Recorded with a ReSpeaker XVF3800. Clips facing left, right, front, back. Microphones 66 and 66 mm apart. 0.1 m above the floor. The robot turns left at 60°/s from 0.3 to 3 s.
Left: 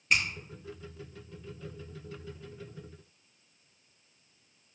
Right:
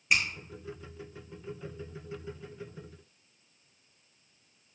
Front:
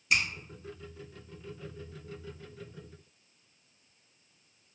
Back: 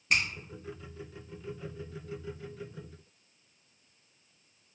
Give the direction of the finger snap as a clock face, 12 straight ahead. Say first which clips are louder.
Even, even; 6 o'clock.